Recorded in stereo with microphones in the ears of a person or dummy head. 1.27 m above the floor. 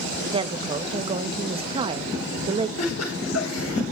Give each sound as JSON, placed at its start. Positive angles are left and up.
{"t": 0.2, "sound": "a woman speaking", "side_deg": -25, "distance_m": 1.1}
{"t": 2.8, "sound": "laughter", "side_deg": 80, "distance_m": 5.0}